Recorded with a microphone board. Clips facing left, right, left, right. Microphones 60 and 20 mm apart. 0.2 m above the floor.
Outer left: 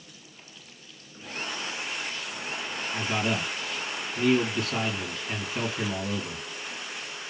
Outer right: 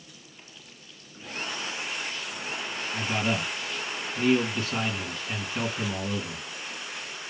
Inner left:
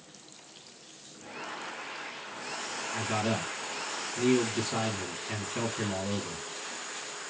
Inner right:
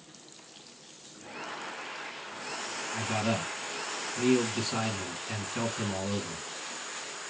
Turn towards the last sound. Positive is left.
turn(degrees=5)  # may be behind; listen again after turning